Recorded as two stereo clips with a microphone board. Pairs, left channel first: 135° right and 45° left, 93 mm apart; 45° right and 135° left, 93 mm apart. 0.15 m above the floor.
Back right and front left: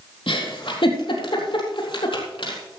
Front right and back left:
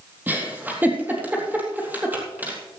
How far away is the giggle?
About 4 m.